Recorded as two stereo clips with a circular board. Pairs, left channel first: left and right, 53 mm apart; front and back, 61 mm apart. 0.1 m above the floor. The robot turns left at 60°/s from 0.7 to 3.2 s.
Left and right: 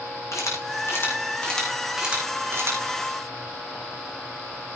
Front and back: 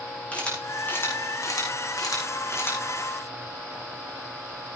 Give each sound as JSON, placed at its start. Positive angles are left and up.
{"t": 0.3, "sound": "a camera shutter", "azimuth_deg": 70, "distance_m": 4.5}